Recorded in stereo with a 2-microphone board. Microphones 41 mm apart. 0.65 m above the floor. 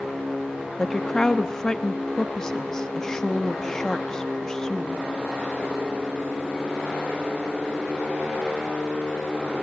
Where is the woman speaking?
15° left (ahead or behind), 0.8 m.